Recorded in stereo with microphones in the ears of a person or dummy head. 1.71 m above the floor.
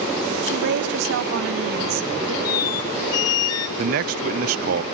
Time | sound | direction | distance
0.4 | a woman speaking | 65° right (ahead or behind) | 1.6 m
2.5 | a squeak | 20° left (ahead or behind) | 0.7 m
3.8 | a man speaking | 55° right (ahead or behind) | 0.7 m